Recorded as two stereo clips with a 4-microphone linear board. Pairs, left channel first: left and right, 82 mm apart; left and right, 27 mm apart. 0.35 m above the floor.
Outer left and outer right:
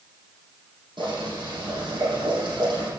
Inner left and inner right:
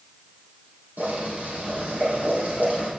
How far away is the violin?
No violin in this recording.